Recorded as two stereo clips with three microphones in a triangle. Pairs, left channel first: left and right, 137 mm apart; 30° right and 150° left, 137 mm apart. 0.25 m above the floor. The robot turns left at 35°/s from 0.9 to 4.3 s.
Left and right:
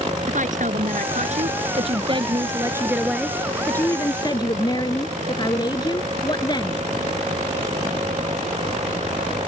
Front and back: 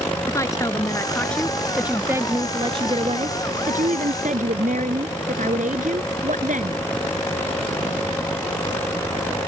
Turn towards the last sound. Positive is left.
turn(degrees=145)